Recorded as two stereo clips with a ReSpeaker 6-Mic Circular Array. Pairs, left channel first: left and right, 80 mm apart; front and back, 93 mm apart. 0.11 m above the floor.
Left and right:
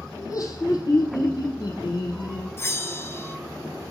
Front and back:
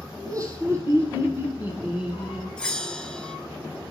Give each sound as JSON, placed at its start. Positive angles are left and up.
{"t": 0.2, "sound": "laughter", "azimuth_deg": 135, "distance_m": 3.5}
{"t": 2.6, "sound": "a bell", "azimuth_deg": 75, "distance_m": 0.7}